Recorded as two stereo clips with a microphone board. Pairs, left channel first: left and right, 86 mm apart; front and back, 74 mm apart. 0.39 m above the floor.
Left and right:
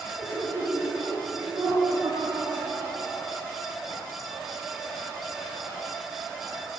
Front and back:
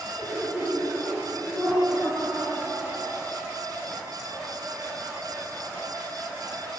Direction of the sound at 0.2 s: 65° right.